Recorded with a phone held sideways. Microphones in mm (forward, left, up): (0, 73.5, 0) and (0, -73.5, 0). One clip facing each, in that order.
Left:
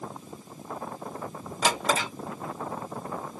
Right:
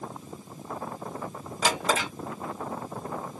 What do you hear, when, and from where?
1.6 s a drawer: centre (ahead or behind), 1.1 m